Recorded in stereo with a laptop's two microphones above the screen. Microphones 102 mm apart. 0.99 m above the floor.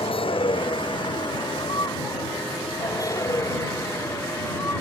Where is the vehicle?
60° left (ahead or behind); by 4.8 s 25° left (ahead or behind).